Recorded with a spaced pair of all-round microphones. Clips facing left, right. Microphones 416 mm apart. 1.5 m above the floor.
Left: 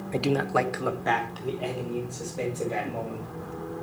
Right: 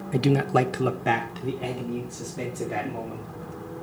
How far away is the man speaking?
About 0.5 m.